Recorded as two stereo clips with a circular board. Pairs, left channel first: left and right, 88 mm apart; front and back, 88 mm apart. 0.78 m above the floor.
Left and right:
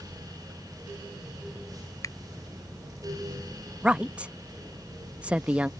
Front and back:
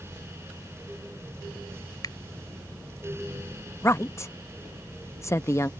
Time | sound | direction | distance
2.0 | a finger snap | 40° left | ?
3.8 | a woman speaking | 25° right | ?